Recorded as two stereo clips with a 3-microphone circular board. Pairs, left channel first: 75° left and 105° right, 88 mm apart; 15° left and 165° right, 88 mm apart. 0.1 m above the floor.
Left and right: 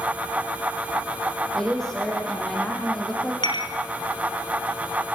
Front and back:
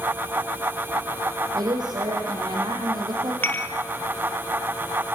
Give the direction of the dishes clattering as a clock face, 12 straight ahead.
9 o'clock.